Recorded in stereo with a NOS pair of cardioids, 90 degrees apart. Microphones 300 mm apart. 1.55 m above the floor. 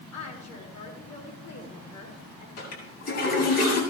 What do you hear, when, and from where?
0.1 s a woman speaking: 65° left, 6.5 m
2.6 s a toilet flushing: 60° left, 8 m